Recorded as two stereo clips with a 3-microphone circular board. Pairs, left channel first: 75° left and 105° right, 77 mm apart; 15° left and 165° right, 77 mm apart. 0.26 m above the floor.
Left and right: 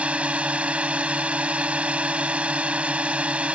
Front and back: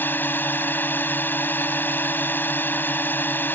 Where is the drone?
40° right.